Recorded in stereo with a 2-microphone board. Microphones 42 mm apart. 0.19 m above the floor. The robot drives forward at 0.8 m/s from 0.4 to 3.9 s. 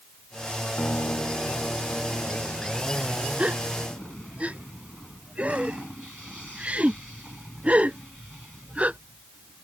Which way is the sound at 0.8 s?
65° left (ahead or behind).